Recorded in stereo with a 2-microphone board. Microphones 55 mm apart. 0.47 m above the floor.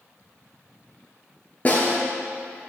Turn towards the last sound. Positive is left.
turn(degrees=30)  # may be behind; listen again after turning